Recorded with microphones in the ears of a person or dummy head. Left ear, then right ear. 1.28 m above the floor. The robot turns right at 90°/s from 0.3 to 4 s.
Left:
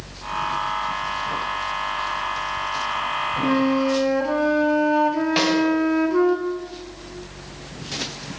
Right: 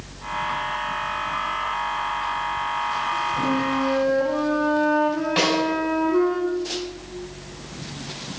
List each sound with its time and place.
3.4 s a flute: 70° left, 1.2 m; by 6.4 s 125° left, 1.2 m
5.4 s a snare drum: 20° left (ahead or behind), 4 m